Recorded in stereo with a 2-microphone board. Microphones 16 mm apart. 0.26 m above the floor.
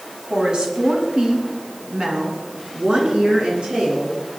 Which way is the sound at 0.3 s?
50° right (ahead or behind).